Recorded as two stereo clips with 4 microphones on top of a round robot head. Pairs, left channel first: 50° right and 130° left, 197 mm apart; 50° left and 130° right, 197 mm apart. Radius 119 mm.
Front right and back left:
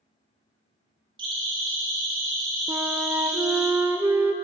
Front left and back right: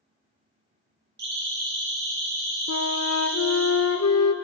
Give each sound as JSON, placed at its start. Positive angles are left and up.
{"t": 1.2, "sound": "a siren", "azimuth_deg": -165, "distance_m": 10.0}
{"t": 2.7, "sound": "a flute", "azimuth_deg": 50, "distance_m": 1.1}